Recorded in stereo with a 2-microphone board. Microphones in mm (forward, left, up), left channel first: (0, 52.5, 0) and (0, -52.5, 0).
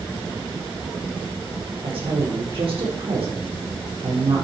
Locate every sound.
1.8 s a woman speaking: 65° right (ahead or behind), 7 m